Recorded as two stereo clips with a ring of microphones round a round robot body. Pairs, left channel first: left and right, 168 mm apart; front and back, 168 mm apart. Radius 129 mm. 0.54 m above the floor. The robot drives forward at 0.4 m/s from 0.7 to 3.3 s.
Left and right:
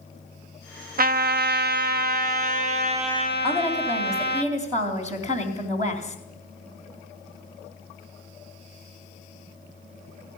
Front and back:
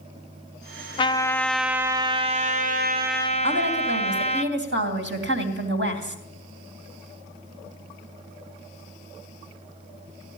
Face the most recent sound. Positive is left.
turn(degrees=-165)